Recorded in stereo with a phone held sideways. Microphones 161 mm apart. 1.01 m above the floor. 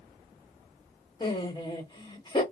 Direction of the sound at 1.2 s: 30° left (ahead or behind).